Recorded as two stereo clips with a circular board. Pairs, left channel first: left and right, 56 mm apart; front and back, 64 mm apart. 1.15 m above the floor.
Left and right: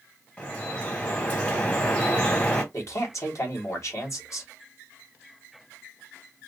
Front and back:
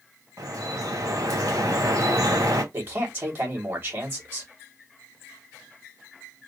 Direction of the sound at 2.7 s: 125° left.